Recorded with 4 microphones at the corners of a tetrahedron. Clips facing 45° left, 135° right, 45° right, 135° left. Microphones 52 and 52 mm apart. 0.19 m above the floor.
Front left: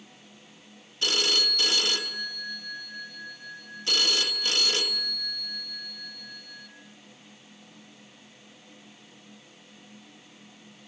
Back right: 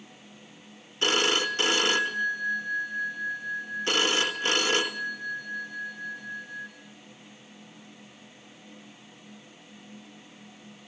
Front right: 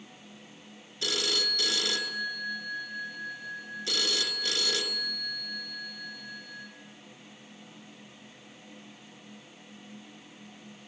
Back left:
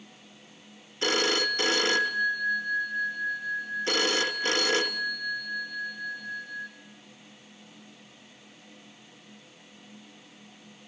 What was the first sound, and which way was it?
A phone ringing, 175° left.